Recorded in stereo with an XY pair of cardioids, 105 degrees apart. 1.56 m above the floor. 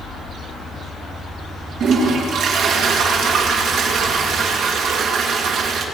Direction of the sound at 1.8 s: 70° right.